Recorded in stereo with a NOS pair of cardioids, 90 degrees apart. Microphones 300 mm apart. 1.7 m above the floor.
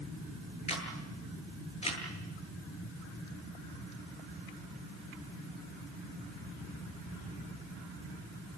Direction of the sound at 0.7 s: 20° left.